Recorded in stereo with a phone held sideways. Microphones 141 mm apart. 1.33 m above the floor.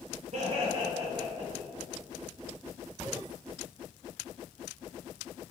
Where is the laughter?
55° right (ahead or behind), 0.6 m; by 1.7 s 5° right (ahead or behind), 1.1 m.